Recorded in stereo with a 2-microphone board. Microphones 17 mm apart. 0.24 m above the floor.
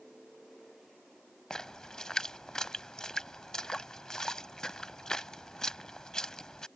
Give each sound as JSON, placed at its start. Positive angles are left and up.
{"t": 1.5, "sound": "a splash", "side_deg": 35}